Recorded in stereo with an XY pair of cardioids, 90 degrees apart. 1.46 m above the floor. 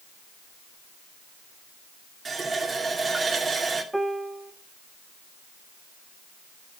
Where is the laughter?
I don't hear laughter.